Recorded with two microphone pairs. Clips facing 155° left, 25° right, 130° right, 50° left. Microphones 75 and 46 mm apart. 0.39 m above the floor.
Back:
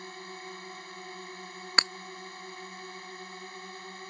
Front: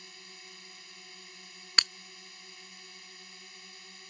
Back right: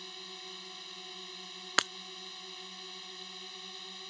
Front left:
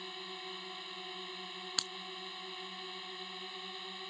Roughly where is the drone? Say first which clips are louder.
Back 11 dB, front left 3 dB; behind left.